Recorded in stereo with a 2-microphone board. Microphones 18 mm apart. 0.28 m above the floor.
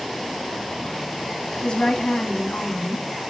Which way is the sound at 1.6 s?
55° left (ahead or behind).